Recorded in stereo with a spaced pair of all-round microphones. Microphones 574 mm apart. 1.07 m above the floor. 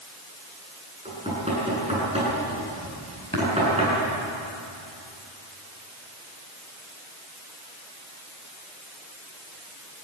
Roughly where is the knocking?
Centre.